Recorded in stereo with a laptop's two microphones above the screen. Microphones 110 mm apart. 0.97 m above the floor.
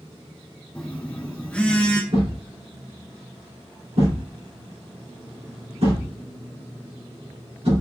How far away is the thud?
About 2.5 m.